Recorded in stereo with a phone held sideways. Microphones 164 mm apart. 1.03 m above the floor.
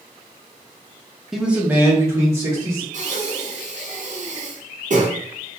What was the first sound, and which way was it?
A man speaking, 5° right (ahead or behind).